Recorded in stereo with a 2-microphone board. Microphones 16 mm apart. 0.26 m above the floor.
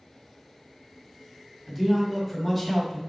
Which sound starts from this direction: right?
A man speaking, at 1.7 s.